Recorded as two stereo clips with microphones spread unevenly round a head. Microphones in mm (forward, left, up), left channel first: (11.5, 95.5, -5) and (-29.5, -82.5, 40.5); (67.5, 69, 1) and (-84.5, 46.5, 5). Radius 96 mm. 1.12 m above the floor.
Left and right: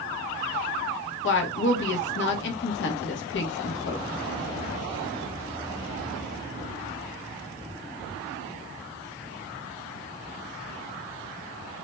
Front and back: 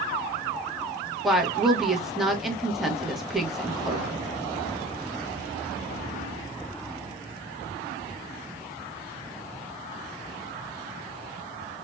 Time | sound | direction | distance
1.2 | a woman speaking | 100° left | 1.0 m